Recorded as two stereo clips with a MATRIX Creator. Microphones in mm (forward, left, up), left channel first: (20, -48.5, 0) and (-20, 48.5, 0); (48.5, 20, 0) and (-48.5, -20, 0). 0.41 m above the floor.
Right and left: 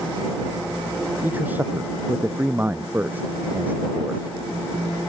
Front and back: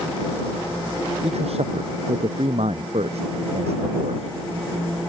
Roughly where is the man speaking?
Behind.